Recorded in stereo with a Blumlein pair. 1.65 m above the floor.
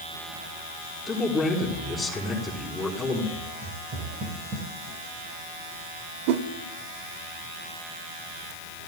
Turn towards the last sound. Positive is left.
turn(degrees=-50)